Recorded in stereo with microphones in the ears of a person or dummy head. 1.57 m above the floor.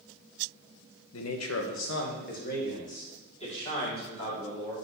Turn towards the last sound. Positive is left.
turn(degrees=30)  # may be behind; listen again after turning